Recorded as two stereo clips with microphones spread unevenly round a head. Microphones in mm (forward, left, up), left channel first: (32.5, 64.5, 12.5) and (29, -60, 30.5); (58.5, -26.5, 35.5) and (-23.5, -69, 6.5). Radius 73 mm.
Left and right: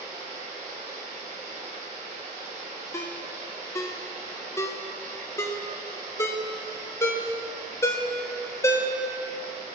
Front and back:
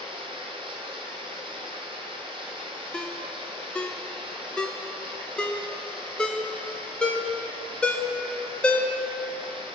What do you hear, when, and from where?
0.0 s running water: 120° right, 2.5 m
2.9 s a ringtone: 25° left, 0.7 m